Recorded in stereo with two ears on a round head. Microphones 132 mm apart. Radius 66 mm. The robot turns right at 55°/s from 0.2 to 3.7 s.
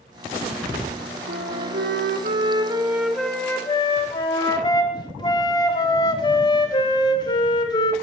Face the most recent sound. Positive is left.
turn(degrees=30)